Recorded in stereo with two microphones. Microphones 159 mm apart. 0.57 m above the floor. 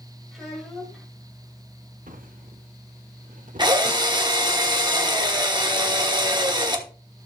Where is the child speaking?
Centre (ahead or behind), 2.5 m.